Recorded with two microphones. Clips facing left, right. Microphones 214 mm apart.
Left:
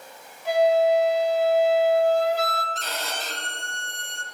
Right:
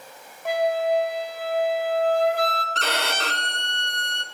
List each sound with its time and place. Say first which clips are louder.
0.5 s a flute: left 4 dB; 55° right (ahead or behind), 1.2 m
2.8 s a violin: right 5 dB; 75° right (ahead or behind), 0.5 m